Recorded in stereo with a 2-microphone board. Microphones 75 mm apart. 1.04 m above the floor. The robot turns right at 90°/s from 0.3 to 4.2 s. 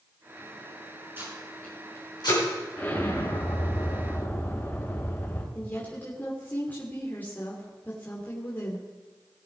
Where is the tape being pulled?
25° right (ahead or behind), 5.5 m; by 2.4 s 85° left, 5.5 m.